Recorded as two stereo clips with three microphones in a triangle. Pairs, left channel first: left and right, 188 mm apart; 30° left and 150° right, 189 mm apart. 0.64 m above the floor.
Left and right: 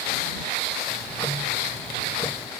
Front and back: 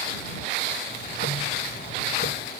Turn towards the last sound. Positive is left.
turn(degrees=20)